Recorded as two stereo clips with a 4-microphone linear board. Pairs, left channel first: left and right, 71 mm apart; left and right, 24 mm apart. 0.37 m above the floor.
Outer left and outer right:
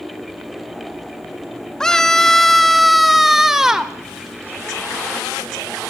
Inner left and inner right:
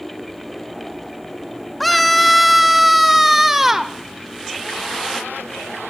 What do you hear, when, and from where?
1.8 s a scream: 10° left (ahead or behind), 1.5 m; by 3.9 s 10° right (ahead or behind), 1.3 m